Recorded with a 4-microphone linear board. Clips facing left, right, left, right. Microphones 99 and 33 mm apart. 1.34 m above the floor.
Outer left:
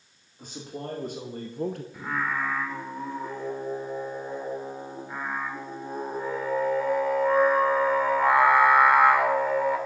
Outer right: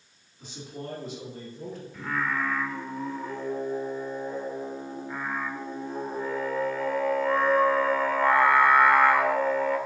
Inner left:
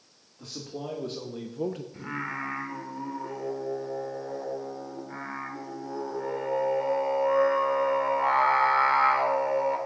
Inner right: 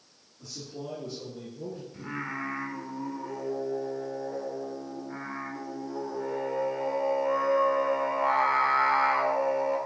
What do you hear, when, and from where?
0.4 s a man speaking: 50° left (ahead or behind), 2.5 m; by 1.8 s 75° left (ahead or behind), 0.6 m
1.9 s singing: 15° left (ahead or behind), 1.5 m